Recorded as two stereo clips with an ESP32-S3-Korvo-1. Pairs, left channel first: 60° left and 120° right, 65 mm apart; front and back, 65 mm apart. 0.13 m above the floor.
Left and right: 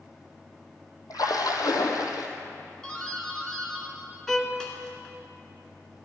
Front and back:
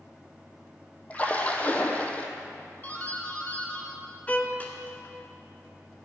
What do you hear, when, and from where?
1.1 s a splash: 65° left, 1.1 m
2.8 s a doorbell: 5° right, 1.9 m
4.3 s a violin: 15° right, 0.9 m